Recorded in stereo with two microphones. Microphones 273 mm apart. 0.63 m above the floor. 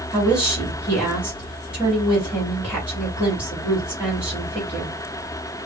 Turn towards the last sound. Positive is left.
turn(degrees=10)  # may be behind; listen again after turning